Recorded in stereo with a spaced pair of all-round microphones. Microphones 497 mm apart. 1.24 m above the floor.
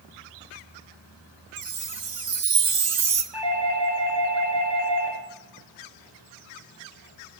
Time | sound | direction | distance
1.6 | a chime | 60° right (ahead or behind) | 0.5 m
3.3 | a doorbell | 55° right (ahead or behind) | 1.7 m